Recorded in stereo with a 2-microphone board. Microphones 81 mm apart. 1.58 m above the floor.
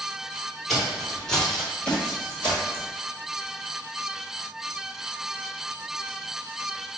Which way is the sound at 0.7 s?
Centre (ahead or behind).